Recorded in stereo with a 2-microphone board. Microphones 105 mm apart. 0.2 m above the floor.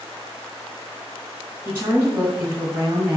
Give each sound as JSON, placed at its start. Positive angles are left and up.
{"t": 1.6, "sound": "a woman speaking", "side_deg": -20, "distance_m": 1.4}